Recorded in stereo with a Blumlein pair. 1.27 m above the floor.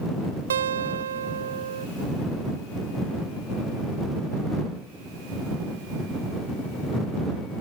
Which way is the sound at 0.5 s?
65° right.